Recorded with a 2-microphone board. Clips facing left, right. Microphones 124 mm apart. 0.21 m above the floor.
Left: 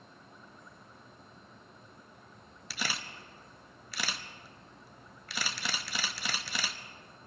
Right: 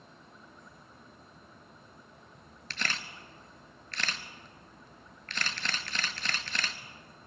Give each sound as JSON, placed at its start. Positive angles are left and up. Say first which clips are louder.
{"t": 2.7, "sound": "a camera shutter", "louder": "even", "side_deg": 10, "distance_m": 0.7}